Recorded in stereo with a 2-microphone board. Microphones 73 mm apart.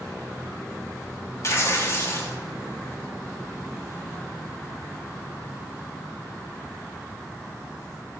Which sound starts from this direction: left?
Tearing paper, at 1.4 s.